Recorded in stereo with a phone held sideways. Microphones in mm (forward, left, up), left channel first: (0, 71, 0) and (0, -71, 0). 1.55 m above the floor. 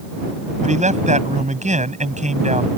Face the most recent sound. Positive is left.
turn(degrees=-55)  # may be behind; listen again after turning